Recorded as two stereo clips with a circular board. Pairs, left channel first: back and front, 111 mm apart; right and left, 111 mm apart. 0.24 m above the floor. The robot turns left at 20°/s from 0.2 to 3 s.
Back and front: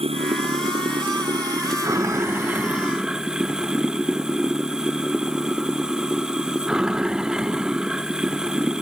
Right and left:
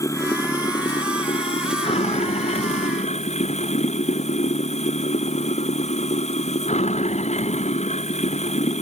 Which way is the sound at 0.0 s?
30° right.